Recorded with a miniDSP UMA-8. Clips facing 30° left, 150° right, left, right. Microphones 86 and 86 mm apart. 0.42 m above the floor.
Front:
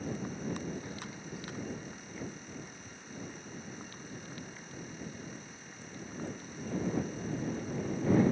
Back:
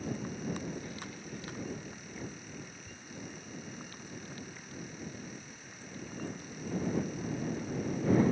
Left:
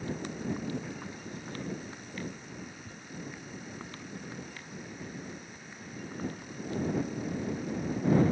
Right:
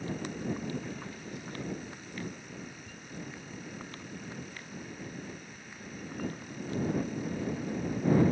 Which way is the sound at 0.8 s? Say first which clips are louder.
Even, even; straight ahead.